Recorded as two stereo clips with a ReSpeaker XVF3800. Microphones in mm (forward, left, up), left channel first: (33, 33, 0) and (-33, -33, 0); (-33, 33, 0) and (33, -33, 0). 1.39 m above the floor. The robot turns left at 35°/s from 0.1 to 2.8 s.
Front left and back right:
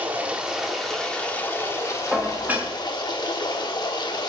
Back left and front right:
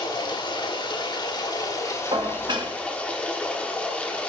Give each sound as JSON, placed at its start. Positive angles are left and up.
{"t": 0.0, "sound": "running water", "azimuth_deg": 160, "distance_m": 1.3}
{"t": 2.1, "sound": "dishes clattering", "azimuth_deg": -50, "distance_m": 1.2}